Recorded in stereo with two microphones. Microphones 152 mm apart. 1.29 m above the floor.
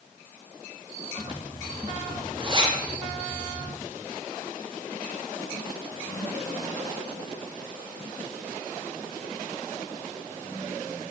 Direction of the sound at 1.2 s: 35° right (ahead or behind).